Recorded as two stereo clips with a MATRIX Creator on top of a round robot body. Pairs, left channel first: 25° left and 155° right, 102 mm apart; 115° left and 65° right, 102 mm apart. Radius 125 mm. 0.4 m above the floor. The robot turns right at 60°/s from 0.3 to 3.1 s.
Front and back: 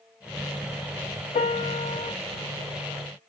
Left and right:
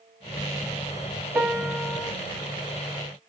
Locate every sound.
1.4 s a piano: 5° left, 0.6 m; by 2.1 s 55° left, 0.6 m